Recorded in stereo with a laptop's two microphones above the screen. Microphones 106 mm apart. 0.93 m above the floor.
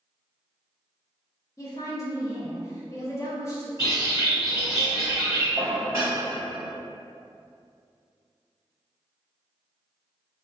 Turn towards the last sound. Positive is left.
turn(degrees=-25)  # may be behind; listen again after turning